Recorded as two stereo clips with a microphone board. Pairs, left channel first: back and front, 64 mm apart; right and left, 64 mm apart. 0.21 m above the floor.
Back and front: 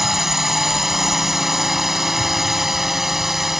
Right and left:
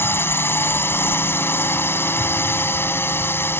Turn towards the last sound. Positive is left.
turn(degrees=-80)